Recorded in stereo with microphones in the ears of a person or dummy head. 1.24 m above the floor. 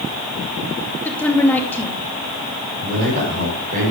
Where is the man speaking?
60° right (ahead or behind), 4.5 m.